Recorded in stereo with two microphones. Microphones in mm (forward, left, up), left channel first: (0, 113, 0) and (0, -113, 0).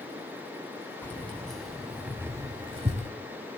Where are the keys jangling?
10° left (ahead or behind), 2 m; by 3.1 s 35° right (ahead or behind), 1.3 m.